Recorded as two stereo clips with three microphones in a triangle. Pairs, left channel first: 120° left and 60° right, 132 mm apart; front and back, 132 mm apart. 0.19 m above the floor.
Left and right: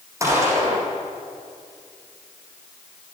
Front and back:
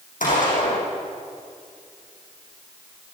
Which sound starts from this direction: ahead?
A gunshot, at 0.2 s.